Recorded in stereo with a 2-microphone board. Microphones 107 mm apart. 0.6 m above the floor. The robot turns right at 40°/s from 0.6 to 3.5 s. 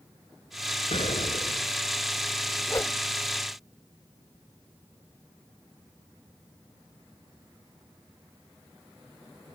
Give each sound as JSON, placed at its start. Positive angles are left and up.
{"t": 0.9, "sound": "an explosion", "azimuth_deg": 65}
{"t": 2.7, "sound": "a whoosh", "side_deg": 30}